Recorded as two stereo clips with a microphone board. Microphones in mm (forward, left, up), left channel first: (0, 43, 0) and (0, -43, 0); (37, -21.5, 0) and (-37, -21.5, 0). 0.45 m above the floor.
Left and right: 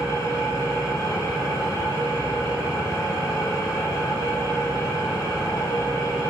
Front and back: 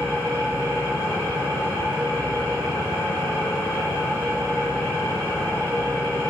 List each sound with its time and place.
0.0 s an engine running: 50° left, 1.6 m